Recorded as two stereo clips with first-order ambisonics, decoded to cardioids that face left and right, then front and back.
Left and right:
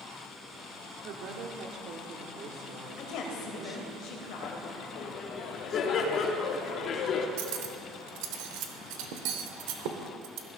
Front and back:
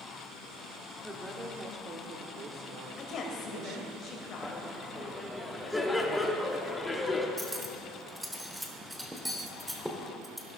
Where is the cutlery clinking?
95° right, 1.0 m.